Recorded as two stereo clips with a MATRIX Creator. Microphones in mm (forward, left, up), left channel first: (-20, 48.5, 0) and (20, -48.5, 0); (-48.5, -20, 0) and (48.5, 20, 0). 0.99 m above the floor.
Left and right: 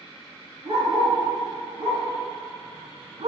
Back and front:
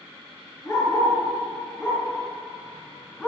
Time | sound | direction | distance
0.7 | a dog barking | 100° right | 4 m